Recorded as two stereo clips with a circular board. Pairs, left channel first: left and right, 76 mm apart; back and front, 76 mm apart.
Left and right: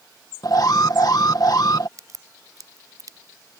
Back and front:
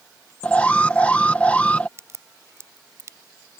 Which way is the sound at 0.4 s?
110° left.